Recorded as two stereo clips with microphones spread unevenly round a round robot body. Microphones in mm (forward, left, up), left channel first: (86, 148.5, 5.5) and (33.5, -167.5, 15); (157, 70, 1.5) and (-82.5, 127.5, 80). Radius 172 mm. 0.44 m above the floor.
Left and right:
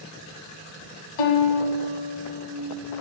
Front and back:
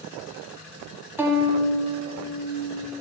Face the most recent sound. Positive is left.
turn(degrees=85)